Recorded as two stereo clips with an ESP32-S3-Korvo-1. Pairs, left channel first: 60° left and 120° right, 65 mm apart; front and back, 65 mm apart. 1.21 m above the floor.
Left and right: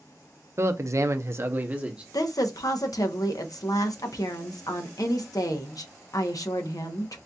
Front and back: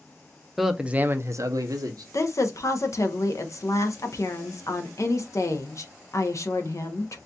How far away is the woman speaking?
About 0.8 m.